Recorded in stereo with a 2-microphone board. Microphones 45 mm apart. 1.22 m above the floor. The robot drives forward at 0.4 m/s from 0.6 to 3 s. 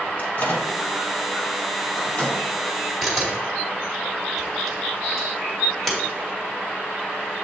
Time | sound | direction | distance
0.2 | a microwave | 45° left (ahead or behind) | 1.0 m
3.0 | a camera shutter | centre (ahead or behind) | 2 m